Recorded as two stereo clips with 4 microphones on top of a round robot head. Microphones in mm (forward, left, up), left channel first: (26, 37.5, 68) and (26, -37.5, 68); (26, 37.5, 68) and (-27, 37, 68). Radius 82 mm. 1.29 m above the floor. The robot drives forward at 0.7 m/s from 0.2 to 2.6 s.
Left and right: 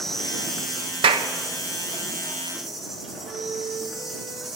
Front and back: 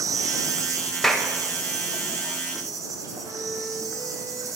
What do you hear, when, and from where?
0.0 s an insect: 175° left, 0.8 m; by 4.6 s straight behind, 2.5 m
1.0 s a clap: 80° right, 1.0 m; by 1.3 s 95° right, 1.0 m
3.2 s a flute: 110° right, 3 m